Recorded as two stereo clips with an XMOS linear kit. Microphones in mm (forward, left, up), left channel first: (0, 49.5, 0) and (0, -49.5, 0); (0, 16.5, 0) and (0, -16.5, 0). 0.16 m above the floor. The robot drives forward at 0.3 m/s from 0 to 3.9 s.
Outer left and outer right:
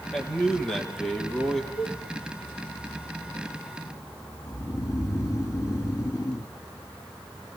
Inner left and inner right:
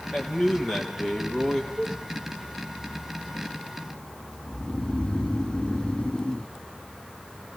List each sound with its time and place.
0.1 s a man speaking: 5° left (ahead or behind), 4.5 m
1.8 s a cowbell: 40° left (ahead or behind), 7 m
4.5 s snoring: 30° left (ahead or behind), 1.1 m